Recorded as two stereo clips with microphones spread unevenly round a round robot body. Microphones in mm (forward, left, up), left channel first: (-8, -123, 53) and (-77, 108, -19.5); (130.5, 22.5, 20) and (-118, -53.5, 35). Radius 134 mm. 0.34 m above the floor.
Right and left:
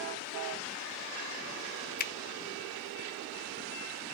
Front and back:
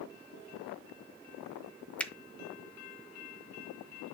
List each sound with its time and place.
2.0 s a finger snap: 50° right, 0.6 m